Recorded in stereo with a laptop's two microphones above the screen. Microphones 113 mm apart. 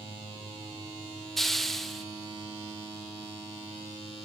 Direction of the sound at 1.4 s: Centre (ahead or behind).